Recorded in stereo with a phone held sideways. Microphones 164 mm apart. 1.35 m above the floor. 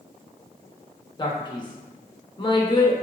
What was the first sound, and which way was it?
A man speaking, 30° left (ahead or behind).